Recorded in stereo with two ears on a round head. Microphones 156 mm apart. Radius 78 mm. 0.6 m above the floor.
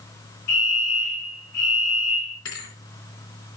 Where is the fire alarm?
60° left (ahead or behind), 4 m.